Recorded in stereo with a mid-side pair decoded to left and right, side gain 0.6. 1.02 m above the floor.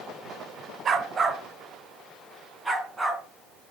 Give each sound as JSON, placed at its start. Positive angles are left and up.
{"t": 0.8, "sound": "a dog barking", "azimuth_deg": -40, "distance_m": 1.8}